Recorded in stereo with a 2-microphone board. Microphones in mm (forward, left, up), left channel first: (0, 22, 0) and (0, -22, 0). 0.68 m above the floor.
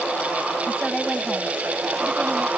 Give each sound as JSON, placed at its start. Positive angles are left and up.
{"t": 0.7, "sound": "a woman speaking", "side_deg": 0}